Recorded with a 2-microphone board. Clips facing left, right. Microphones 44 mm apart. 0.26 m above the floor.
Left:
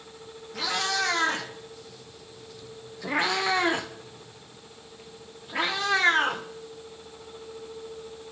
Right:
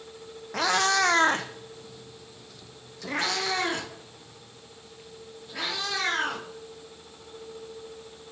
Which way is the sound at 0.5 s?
70° right (ahead or behind).